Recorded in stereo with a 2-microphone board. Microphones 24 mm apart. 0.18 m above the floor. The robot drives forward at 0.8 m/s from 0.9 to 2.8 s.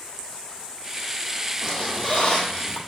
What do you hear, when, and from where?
1.6 s a squeak: 35° left (ahead or behind), 2 m; by 2.8 s 55° left (ahead or behind), 1.4 m